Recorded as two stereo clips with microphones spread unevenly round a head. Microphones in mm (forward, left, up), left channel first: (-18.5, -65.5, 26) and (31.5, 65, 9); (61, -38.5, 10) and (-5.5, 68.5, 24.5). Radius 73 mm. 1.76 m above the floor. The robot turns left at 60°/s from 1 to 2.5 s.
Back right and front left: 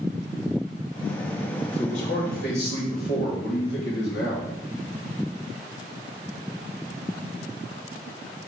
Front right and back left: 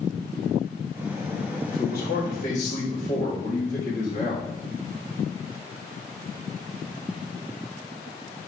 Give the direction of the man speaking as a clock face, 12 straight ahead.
2 o'clock.